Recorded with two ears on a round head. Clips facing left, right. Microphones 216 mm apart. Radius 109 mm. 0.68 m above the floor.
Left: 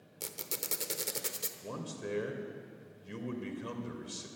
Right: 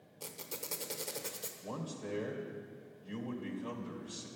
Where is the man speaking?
30° left (ahead or behind), 2.5 m.